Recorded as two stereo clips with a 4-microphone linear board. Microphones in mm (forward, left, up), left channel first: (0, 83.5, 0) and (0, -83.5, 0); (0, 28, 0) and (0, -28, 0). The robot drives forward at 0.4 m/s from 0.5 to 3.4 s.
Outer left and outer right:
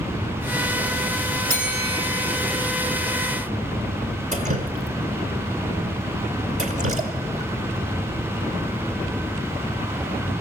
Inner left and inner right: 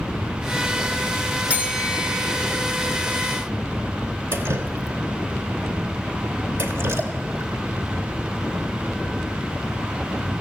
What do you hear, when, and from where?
1.5 s a bell: 20° right (ahead or behind), 1.8 m; by 2.3 s 25° right (ahead or behind), 1.8 m
4.3 s dripping: 45° right (ahead or behind), 1.0 m